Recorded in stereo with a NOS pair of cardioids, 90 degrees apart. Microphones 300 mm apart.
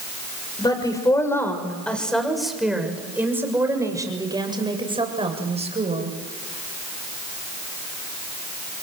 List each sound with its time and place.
0.6 s a woman speaking: 15° left, 6.5 m; by 6.2 s 25° right, 8 m